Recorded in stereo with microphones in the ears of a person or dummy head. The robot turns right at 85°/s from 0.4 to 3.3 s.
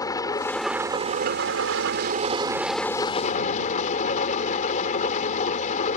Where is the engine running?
160° left; by 6.0 s 45° left.